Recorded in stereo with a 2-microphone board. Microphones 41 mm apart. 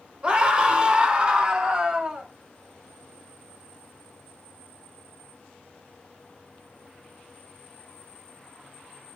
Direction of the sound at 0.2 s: 25° right (ahead or behind).